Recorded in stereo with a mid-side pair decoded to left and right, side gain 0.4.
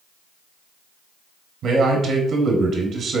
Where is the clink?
No clink in this recording.